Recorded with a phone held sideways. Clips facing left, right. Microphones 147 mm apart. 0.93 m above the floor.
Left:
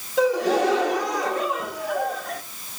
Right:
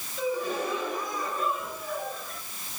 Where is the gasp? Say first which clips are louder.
Left 10 dB; 70° left (ahead or behind), 1.3 m.